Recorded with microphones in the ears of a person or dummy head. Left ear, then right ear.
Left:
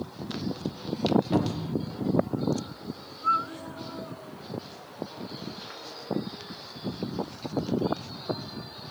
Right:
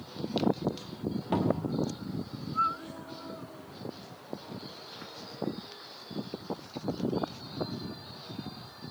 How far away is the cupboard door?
About 0.8 m.